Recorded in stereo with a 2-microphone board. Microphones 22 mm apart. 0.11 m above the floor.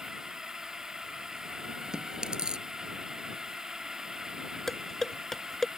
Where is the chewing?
40° right (ahead or behind).